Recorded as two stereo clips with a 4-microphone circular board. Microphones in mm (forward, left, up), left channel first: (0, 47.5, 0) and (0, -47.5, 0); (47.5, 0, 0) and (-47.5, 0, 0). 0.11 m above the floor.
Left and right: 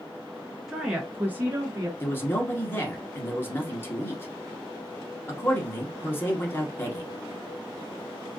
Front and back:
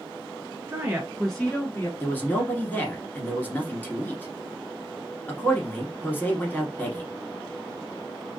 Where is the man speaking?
50° left, 1.4 m.